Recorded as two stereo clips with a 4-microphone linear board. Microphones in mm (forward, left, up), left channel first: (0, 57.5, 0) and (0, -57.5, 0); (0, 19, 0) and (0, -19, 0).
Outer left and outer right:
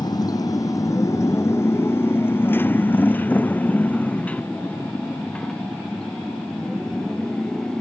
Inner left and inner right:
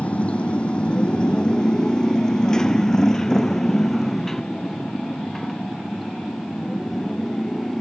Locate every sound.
0.0 s a motorcycle: 35° left (ahead or behind); by 7.8 s 5° left (ahead or behind)